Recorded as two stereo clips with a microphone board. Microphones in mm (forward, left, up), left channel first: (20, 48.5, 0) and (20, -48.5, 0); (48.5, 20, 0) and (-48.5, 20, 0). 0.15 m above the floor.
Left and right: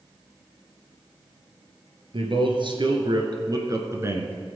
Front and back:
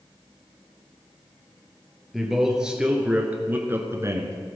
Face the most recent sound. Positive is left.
turn(degrees=-150)